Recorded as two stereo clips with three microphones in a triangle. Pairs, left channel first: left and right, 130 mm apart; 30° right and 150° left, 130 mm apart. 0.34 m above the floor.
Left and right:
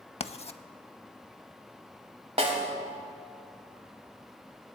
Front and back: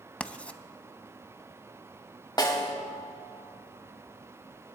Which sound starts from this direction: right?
A snare drum, at 2.4 s.